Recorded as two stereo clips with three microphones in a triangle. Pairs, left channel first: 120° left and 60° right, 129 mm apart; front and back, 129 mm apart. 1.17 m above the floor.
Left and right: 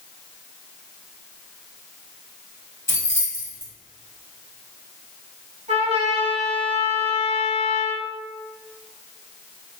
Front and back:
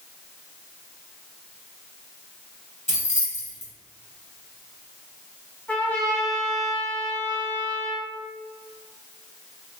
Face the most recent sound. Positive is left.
turn(degrees=-80)